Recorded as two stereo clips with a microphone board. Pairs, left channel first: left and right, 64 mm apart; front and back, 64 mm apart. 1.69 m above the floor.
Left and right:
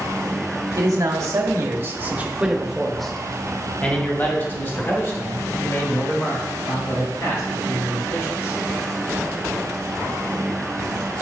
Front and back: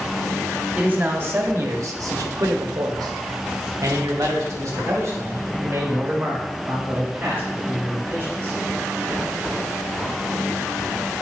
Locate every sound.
0.8 s a man speaking: 120° right, 1.3 m; by 8.6 s 125° left, 3.5 m